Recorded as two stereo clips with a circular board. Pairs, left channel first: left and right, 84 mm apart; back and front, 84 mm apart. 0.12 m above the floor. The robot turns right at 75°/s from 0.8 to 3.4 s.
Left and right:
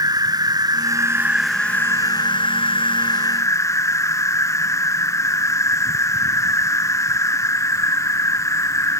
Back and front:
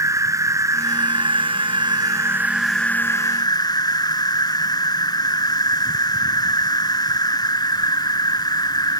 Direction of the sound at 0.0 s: 50° right.